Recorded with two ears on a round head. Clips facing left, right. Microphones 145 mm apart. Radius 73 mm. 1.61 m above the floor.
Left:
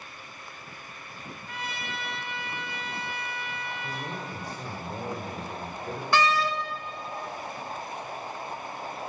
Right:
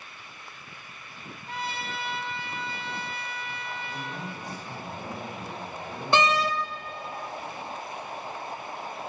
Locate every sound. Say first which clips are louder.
1.5 s a trumpet: right 4 dB; 30° right (ahead or behind), 3.5 m
3.8 s a man speaking: left 1 dB; 65° left (ahead or behind), 7 m
6.1 s a door slam: right 1 dB; 20° right (ahead or behind), 1.4 m